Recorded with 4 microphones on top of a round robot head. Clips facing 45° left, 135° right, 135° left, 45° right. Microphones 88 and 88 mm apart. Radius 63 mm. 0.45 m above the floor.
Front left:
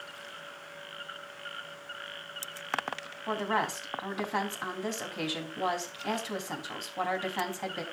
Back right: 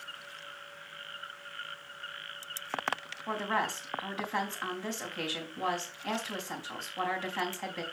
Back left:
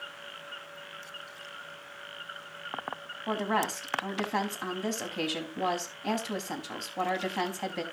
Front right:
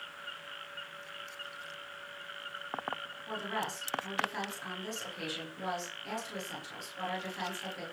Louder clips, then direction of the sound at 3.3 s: Front left 2 dB, back left 8 dB; 120° left.